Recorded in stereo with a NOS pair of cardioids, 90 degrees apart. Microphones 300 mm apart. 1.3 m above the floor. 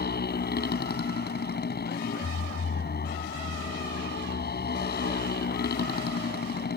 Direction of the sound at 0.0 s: 30° left.